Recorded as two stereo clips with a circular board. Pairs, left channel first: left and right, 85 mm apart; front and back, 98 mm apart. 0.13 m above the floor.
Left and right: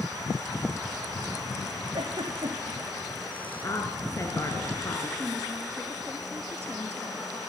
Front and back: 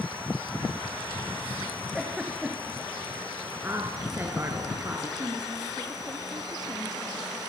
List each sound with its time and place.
1.9 s a giggle: 95° right, 3.5 m
3.6 s a woman speaking: 125° left, 2 m
5.2 s a woman speaking: 145° right, 2 m